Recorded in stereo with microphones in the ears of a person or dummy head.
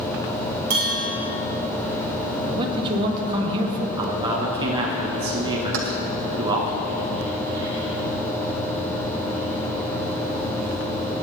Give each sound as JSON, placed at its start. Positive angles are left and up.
{"t": 0.7, "sound": "a bell", "side_deg": -45, "distance_m": 3.0}
{"t": 2.5, "sound": "a man speaking", "side_deg": -30, "distance_m": 2.0}
{"t": 4.0, "sound": "a man speaking", "side_deg": -25, "distance_m": 1.4}
{"t": 5.7, "sound": "keys jangling", "side_deg": -65, "distance_m": 1.4}